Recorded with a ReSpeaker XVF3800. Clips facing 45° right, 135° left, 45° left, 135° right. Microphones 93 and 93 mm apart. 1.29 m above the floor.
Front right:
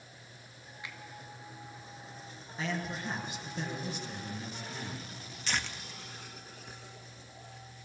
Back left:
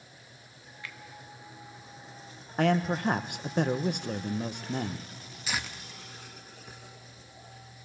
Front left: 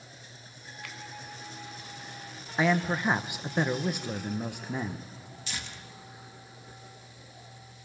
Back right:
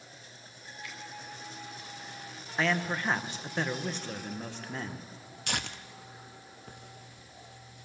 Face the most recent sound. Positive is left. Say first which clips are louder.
# back left 1 dB, back right 6 dB
turn(degrees=-145)